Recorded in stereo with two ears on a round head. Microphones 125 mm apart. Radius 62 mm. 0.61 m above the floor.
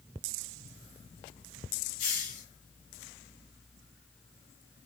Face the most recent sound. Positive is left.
turn(degrees=65)  # may be behind; listen again after turning